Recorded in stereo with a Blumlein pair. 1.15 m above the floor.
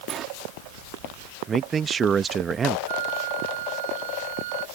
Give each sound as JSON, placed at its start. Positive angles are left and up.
{"t": 0.1, "sound": "a sliding door", "azimuth_deg": -25}
{"t": 1.5, "sound": "a man speaking", "azimuth_deg": -20}
{"t": 2.9, "sound": "a flute", "azimuth_deg": -55}